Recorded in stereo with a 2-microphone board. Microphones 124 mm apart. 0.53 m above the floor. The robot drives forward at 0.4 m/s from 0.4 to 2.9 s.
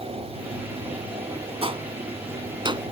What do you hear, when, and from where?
1.6 s a gunshot: 45° right (ahead or behind); by 2.9 s 40° right (ahead or behind)